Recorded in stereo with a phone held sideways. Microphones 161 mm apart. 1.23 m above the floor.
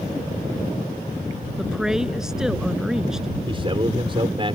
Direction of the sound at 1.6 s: 5° right (ahead or behind).